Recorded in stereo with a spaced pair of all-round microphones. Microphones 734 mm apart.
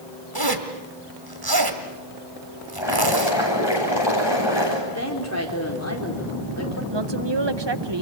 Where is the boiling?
35° left (ahead or behind), 8.5 m.